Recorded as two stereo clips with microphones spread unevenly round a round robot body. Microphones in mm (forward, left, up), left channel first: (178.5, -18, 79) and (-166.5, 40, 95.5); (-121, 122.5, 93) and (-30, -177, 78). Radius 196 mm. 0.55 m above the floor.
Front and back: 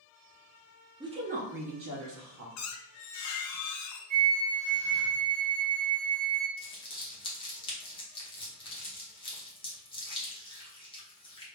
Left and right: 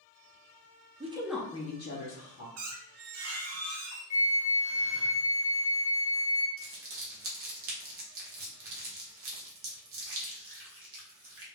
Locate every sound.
1.0 s a woman speaking: 115° right, 0.7 m; by 2.5 s 125° left, 0.9 m
2.6 s a squeak: 45° right, 0.5 m
4.1 s a flute: 145° left, 1.1 m
6.6 s crumpling: 75° right, 1.0 m